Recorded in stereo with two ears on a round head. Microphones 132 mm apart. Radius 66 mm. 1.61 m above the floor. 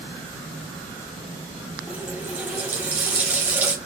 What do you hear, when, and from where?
1.9 s a running tap: 10° right (ahead or behind), 1.6 m